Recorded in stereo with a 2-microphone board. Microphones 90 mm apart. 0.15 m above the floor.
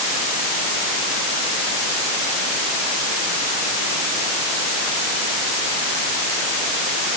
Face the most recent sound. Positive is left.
No sound to turn to.